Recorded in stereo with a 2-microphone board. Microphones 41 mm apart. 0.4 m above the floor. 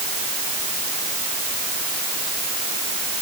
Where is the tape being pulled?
No tape being pulled in this recording.